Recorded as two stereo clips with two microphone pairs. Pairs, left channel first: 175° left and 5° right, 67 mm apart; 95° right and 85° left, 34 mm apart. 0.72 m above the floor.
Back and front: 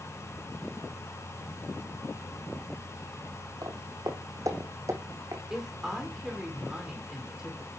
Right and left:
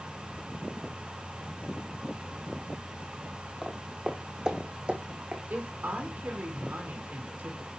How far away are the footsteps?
About 1.7 m.